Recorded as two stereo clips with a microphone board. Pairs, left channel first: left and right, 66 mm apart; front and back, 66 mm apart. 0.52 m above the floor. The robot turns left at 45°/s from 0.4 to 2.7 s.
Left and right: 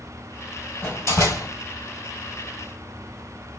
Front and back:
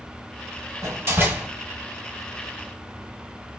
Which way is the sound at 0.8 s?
140° left.